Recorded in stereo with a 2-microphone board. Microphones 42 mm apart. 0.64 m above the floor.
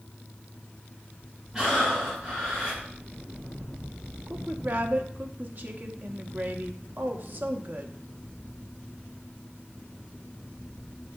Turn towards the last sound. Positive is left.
turn(degrees=-50)  # may be behind; listen again after turning